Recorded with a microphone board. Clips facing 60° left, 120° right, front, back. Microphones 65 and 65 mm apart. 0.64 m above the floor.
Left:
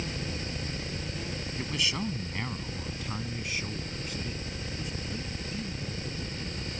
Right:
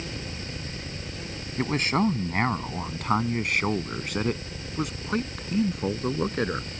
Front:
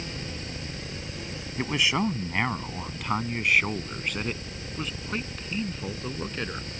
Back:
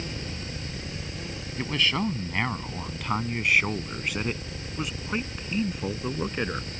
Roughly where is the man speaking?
Right.